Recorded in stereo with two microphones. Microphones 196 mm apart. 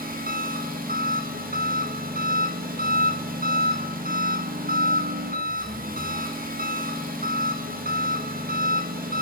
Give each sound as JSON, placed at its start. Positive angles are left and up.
{"t": 0.0, "sound": "an engine running", "side_deg": -50, "distance_m": 0.9}